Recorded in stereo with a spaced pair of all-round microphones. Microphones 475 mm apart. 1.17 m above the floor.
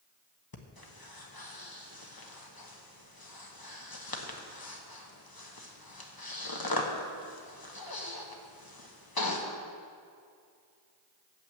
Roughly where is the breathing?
Left.